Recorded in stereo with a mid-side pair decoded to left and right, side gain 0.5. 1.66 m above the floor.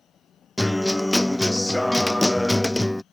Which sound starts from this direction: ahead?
A guitar, at 0.6 s.